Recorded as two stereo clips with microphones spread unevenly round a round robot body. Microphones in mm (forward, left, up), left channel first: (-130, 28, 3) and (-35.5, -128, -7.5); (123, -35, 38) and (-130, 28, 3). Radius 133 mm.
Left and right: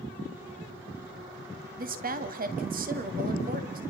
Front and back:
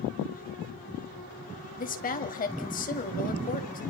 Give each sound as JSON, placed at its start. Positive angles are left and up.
{"t": 1.8, "sound": "a woman speaking", "azimuth_deg": -70, "distance_m": 2.0}